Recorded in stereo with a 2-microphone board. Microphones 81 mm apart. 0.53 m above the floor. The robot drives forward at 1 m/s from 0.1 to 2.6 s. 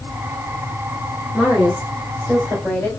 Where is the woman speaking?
5° left (ahead or behind), 1.4 m.